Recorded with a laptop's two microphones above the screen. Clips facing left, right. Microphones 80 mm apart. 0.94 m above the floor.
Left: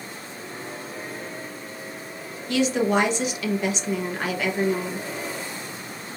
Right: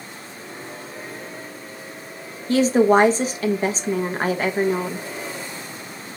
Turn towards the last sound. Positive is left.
turn(degrees=-40)  # may be behind; listen again after turning